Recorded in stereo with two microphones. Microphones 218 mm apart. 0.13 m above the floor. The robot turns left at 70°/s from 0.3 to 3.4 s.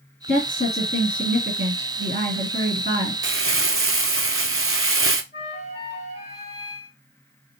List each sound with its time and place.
0.3 s a woman speaking: 70° left, 2.5 m; by 3.1 s 125° right, 2.5 m
3.2 s crumpling: 60° right (ahead or behind), 0.5 m; by 5.2 s 70° right (ahead or behind), 0.5 m
5.3 s a flute: 45° left (ahead or behind), 2 m